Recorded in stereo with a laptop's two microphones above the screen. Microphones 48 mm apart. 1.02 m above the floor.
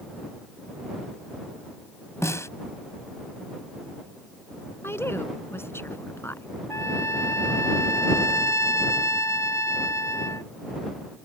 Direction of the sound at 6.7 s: 75° left (ahead or behind).